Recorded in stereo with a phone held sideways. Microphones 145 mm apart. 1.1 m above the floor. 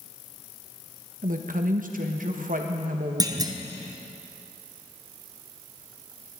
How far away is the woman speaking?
About 1.1 m.